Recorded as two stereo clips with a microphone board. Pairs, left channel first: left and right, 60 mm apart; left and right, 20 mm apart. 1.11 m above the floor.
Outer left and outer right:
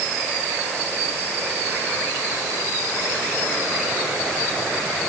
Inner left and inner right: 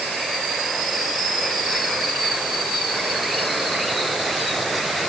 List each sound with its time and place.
Only background noise.